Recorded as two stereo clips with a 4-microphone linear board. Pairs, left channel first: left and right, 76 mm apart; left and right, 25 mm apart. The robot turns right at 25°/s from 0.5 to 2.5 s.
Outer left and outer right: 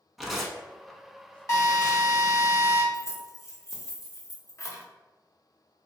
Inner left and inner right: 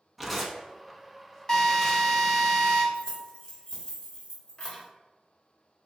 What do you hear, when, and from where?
0.2 s tearing paper: centre (ahead or behind), 0.7 m; by 2.1 s 35° left (ahead or behind), 0.7 m
1.5 s a drill: 35° left (ahead or behind), 1.0 m; by 2.8 s 45° left (ahead or behind), 1.0 m
2.9 s keys jangling: 35° left (ahead or behind), 0.9 m